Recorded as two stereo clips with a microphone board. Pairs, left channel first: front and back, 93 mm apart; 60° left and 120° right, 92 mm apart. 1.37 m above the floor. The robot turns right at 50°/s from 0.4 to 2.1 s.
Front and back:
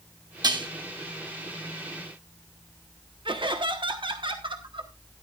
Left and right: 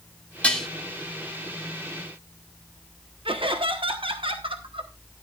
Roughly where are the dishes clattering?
Behind left.